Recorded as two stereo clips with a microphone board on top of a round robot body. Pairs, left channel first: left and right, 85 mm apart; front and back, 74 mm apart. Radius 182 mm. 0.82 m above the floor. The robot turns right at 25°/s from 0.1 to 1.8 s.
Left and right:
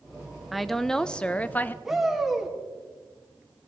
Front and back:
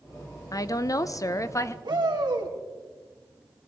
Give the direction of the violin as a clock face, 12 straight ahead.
I don't hear a violin.